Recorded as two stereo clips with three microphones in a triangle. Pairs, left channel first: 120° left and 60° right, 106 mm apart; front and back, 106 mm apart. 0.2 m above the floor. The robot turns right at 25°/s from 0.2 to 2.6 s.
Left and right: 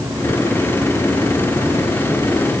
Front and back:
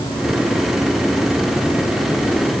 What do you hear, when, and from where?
Only background noise.